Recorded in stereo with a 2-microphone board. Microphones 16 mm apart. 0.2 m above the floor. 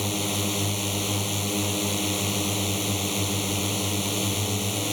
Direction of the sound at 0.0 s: 5° right (ahead or behind).